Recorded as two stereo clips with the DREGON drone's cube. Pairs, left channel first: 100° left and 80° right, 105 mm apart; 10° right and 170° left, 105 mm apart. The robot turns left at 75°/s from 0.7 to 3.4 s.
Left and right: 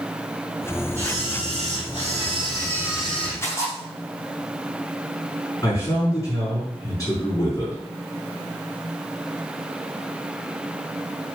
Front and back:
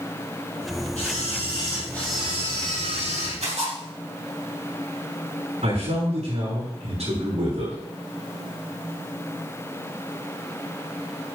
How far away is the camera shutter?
About 6 m.